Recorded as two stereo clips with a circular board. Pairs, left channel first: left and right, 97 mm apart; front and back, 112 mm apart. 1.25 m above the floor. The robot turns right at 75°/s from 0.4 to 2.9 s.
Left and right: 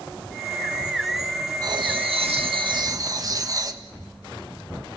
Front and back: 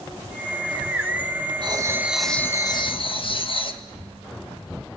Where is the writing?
135° right, 1.4 m; by 3.8 s 40° right, 1.4 m.